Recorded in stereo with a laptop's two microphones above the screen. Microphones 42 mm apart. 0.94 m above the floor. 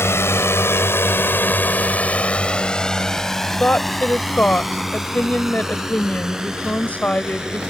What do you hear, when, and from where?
0.0 s a drone: 80° left; by 7.7 s 15° right (ahead or behind)
3.6 s a woman speaking: 35° left (ahead or behind)